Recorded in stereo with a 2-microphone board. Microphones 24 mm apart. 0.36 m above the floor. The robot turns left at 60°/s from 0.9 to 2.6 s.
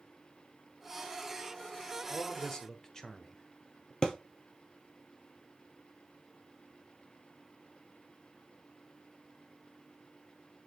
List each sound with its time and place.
2.1 s a man speaking: 20° left (ahead or behind), 1.0 m
4.0 s a thud: 35° left (ahead or behind), 1.2 m